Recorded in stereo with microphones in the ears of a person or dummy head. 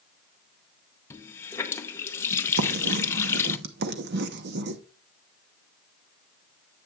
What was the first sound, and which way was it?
A running tap, 15° left (ahead or behind).